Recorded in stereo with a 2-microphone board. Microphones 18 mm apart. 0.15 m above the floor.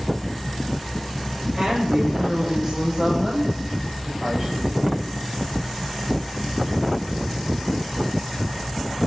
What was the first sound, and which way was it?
A woman speaking, 35° right (ahead or behind).